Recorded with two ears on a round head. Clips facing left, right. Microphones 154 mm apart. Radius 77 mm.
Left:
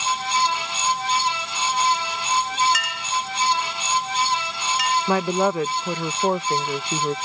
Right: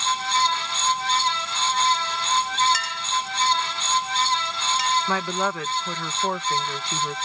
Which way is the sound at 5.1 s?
20° left (ahead or behind).